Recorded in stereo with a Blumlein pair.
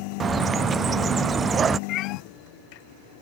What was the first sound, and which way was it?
A bird, 20° right.